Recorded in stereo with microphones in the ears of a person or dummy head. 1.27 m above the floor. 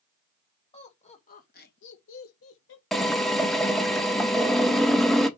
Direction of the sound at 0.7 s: 25° left (ahead or behind).